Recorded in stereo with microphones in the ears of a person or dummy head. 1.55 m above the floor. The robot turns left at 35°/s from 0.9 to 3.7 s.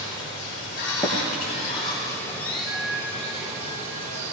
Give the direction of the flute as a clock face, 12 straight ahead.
10 o'clock.